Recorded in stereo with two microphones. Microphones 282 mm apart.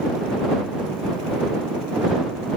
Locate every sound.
Only background noise.